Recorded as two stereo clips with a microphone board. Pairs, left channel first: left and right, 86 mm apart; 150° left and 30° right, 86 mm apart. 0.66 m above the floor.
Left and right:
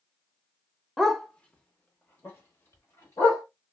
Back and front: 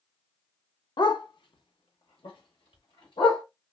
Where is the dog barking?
175° right, 0.5 m; by 3.4 s 145° left, 1.7 m.